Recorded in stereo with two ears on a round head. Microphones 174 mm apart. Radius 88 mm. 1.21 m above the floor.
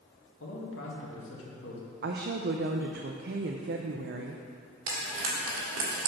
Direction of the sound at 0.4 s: 75° left (ahead or behind).